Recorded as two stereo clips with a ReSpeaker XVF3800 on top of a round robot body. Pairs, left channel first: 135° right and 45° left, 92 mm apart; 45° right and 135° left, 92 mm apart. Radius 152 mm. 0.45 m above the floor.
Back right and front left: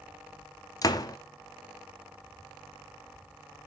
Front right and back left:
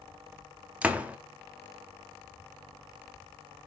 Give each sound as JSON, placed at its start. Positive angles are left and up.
{"t": 0.8, "sound": "a door slam", "azimuth_deg": -155, "distance_m": 1.0}